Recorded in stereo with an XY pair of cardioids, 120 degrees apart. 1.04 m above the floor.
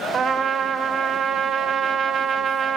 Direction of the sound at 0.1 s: 50° right.